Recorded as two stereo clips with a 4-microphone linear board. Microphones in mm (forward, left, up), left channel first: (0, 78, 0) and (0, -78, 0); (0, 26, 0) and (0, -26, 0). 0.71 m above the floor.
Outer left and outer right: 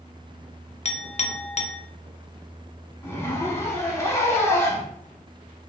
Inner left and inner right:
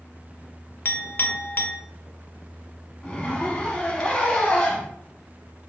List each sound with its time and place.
0.8 s a clink: 40° left (ahead or behind), 0.5 m
3.0 s a zipper: 20° left (ahead or behind), 1.1 m